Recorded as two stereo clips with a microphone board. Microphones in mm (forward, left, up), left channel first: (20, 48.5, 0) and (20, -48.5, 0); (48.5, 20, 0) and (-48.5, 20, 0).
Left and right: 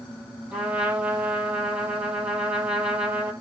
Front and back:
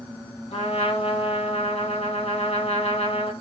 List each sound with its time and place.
0.5 s a trumpet: 15° right, 7.5 m